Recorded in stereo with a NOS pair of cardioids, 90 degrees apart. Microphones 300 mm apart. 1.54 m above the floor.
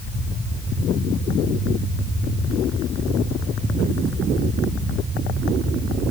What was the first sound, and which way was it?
Only background noise.